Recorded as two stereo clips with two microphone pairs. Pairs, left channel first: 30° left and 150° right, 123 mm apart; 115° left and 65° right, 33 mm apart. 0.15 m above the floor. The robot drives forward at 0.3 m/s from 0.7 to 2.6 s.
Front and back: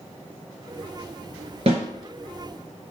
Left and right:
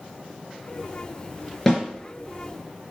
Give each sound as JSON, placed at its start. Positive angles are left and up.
{"t": 1.7, "sound": "a snare drum", "azimuth_deg": -165, "distance_m": 2.5}